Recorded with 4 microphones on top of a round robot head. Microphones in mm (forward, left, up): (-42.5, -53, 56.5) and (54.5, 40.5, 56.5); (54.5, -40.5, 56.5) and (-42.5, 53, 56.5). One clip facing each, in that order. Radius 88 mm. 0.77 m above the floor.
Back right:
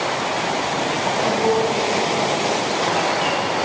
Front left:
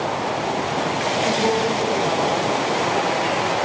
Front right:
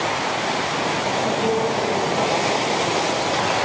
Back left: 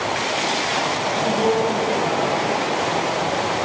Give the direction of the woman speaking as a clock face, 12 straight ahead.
8 o'clock.